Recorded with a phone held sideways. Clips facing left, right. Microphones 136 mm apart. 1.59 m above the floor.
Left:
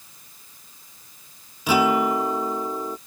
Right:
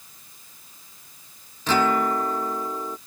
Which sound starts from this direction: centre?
A guitar, at 1.7 s.